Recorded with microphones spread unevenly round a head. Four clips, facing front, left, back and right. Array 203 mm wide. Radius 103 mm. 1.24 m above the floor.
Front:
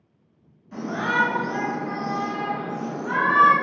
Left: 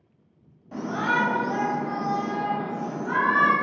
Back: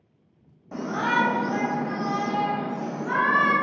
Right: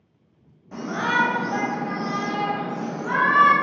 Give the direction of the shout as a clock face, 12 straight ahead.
6 o'clock.